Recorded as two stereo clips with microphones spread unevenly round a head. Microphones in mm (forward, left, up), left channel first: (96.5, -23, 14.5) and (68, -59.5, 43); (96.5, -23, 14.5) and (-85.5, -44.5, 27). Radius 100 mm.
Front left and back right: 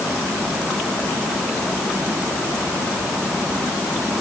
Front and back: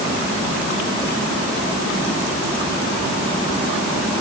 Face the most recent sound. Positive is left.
No sound to turn to.